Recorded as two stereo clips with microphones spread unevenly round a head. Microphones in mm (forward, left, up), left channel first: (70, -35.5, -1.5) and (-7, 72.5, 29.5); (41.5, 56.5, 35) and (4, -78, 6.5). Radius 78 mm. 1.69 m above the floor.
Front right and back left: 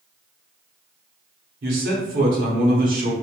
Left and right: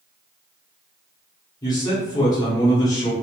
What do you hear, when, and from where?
1.6 s a man speaking: 140° left, 0.9 m